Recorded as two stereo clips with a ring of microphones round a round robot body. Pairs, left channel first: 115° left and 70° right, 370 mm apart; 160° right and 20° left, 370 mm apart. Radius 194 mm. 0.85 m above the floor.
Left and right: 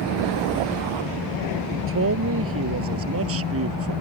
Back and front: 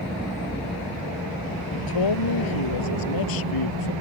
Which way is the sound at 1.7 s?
125° right.